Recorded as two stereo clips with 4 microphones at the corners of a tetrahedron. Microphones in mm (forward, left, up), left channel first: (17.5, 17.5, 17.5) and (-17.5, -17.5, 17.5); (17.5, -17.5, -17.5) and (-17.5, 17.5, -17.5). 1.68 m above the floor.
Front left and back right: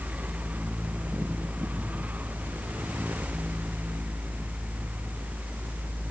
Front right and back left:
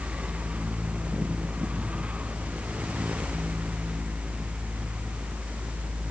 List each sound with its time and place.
Only background noise.